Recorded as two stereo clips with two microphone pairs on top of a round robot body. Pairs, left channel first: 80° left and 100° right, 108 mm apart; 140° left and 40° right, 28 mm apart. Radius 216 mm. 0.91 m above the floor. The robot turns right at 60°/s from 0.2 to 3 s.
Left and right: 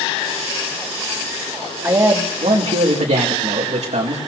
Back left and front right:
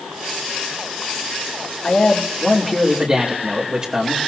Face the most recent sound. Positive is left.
turn(degrees=-95)